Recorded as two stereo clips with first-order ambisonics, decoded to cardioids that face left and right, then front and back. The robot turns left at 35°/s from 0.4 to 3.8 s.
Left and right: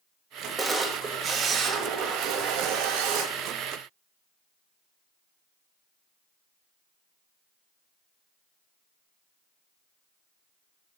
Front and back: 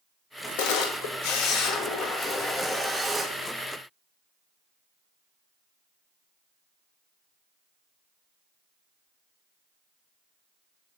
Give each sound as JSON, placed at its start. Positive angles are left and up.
{"t": 0.6, "sound": "a camera shutter", "azimuth_deg": -5, "distance_m": 1.3}